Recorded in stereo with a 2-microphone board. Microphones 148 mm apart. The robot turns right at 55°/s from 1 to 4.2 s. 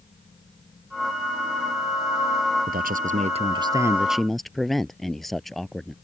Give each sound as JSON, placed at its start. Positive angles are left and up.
{"t": 2.7, "sound": "a man speaking", "azimuth_deg": -85}